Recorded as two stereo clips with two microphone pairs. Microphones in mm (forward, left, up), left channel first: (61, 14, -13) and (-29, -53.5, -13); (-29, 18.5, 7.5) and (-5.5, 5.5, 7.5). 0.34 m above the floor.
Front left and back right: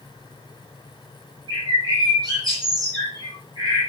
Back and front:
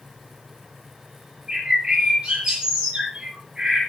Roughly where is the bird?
Right.